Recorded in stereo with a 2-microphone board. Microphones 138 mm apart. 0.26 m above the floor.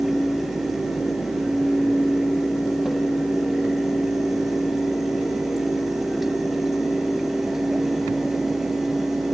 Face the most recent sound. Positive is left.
No sound to turn to.